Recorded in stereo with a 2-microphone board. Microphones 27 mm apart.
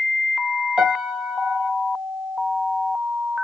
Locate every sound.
0.8 s a piano: 45° right (ahead or behind), 0.8 m